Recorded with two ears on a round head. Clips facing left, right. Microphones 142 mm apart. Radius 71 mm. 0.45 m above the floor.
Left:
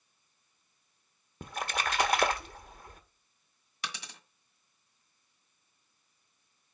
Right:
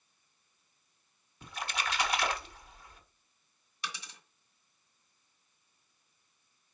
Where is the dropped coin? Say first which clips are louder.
Left 1 dB; 55° left (ahead or behind), 1.6 m.